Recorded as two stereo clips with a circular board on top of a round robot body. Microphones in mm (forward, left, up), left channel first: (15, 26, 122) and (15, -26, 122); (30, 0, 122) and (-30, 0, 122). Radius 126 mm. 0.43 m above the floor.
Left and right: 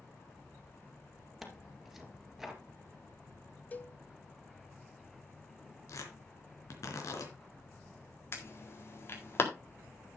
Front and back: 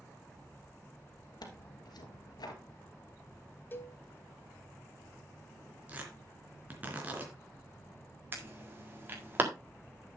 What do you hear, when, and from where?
1.4 s tearing paper: straight ahead, 2.5 m
3.7 s a cowbell: 45° left, 1.6 m
5.9 s tearing paper: 115° left, 3.5 m
8.3 s an alarm: 125° left, 4.5 m